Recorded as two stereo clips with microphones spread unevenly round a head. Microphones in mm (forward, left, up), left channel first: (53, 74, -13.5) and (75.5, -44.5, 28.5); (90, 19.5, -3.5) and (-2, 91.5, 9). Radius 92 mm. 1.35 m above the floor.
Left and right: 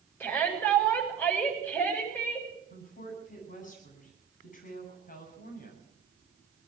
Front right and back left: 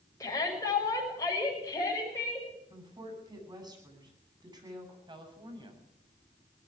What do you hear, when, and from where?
0.2 s a shout: 25° left, 7.5 m
2.7 s a woman speaking: 85° left, 9.5 m
5.1 s a woman speaking: 95° left, 8 m